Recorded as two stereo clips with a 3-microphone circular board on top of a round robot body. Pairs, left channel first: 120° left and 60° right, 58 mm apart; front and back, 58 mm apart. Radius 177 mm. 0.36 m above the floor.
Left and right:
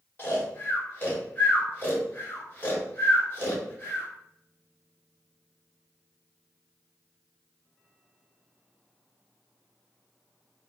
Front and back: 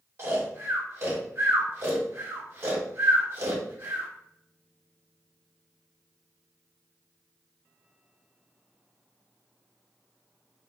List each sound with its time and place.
0.2 s snoring: 165° left, 1.6 m